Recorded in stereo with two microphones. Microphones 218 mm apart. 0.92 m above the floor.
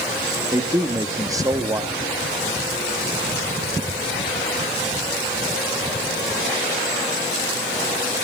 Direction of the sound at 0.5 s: 15° right (ahead or behind).